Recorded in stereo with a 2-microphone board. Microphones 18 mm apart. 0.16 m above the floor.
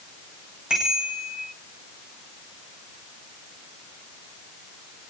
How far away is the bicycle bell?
About 9.5 m.